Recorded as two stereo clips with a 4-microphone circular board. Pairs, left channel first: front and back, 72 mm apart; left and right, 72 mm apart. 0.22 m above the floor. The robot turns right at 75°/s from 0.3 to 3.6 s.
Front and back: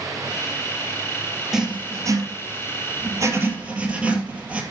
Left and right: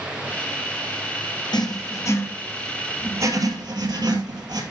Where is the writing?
95° left, 2 m; by 4.6 s 110° right, 2 m.